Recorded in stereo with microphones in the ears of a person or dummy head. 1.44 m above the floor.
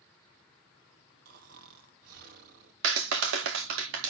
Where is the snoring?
55° right (ahead or behind), 2 m.